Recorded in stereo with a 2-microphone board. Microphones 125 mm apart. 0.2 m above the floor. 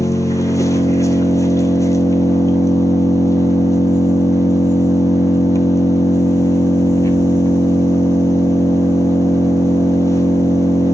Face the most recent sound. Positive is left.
turn(degrees=25)  # may be behind; listen again after turning